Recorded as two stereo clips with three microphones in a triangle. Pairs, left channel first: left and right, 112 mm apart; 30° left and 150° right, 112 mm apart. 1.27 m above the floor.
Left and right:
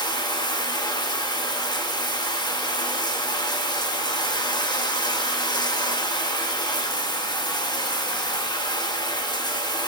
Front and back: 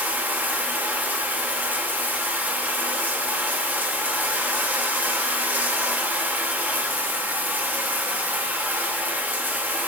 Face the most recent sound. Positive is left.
turn(degrees=135)